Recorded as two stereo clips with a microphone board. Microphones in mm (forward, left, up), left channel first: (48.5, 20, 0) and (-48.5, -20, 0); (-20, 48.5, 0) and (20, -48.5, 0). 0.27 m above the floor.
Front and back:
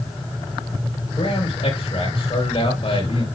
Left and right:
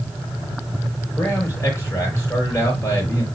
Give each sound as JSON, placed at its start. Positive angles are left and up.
{"t": 1.2, "sound": "a man speaking", "azimuth_deg": 50, "distance_m": 6.0}